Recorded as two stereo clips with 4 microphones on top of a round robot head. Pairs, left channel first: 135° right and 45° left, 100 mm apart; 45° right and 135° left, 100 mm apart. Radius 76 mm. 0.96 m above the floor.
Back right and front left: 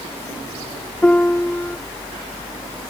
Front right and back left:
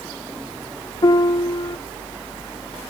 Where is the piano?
65° right, 0.7 m.